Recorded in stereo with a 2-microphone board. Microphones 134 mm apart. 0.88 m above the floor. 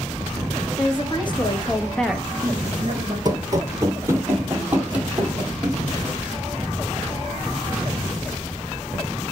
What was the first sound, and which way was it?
A woman speaking, 40° left (ahead or behind).